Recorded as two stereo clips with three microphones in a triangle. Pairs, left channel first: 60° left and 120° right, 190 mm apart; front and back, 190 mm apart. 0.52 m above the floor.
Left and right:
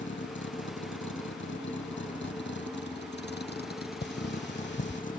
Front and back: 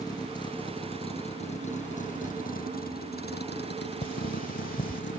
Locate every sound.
0.0 s a vehicle: 70° left; by 5.2 s 15° left
2.2 s a bell: 120° right
4.0 s cutlery clinking: 40° left